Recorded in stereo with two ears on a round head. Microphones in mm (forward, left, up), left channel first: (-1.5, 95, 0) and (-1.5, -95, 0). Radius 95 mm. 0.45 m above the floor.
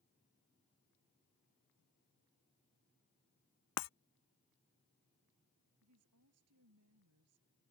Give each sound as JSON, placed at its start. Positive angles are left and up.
{"t": 3.8, "sound": "breaking glass", "side_deg": 80}
{"t": 5.8, "sound": "a woman speaking", "side_deg": -80}